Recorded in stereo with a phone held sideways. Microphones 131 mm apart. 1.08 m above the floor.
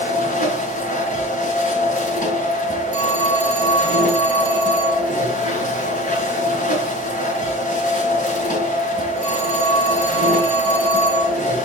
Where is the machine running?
75° left (ahead or behind), 3 m.